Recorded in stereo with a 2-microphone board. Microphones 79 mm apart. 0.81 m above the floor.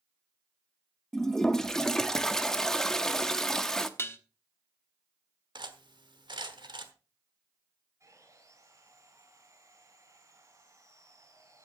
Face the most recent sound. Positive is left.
turn(degrees=-40)  # may be behind; listen again after turning